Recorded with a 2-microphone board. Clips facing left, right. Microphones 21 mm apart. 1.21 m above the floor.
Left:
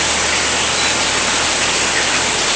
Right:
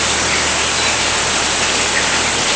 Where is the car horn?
I don't hear a car horn.